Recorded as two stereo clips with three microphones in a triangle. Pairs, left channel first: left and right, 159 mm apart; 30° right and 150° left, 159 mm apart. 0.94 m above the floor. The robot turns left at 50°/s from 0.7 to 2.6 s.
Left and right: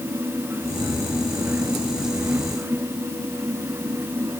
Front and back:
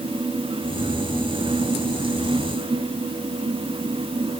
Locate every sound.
Only background noise.